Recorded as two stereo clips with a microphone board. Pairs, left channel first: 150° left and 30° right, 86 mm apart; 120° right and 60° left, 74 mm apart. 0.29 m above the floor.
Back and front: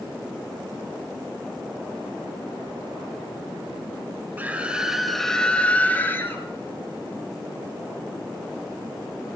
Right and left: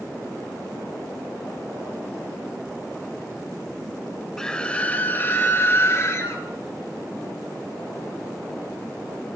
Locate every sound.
4.4 s a scream: 50° right, 0.9 m; by 6.5 s 155° right, 1.4 m